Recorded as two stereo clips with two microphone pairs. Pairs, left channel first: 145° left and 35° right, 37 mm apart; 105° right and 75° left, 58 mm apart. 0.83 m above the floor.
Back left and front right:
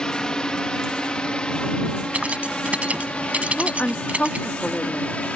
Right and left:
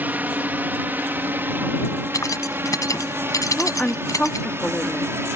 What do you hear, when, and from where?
0.0 s a drone: 95° left; by 5.3 s 100° left
2.1 s keys jangling: 85° right
3.6 s a woman speaking: 175° right